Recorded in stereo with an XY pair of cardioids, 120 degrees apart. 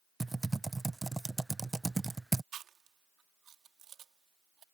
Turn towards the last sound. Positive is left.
turn(degrees=-55)